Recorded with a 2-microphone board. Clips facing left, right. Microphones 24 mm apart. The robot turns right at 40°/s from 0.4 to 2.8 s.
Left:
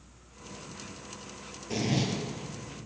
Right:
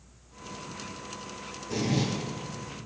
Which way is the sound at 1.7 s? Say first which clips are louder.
Right 1 dB; 25° left (ahead or behind).